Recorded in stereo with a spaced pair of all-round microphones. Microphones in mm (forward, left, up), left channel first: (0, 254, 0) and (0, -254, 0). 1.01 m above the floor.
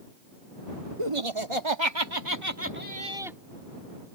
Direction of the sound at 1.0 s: 80° right.